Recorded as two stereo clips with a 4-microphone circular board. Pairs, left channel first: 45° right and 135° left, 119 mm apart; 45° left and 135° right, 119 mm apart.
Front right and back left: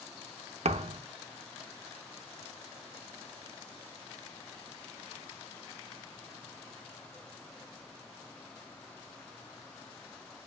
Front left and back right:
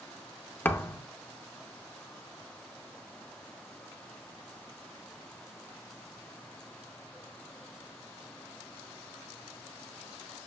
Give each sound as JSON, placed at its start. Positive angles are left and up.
{"t": 0.7, "sound": "a thud", "azimuth_deg": 120, "distance_m": 0.6}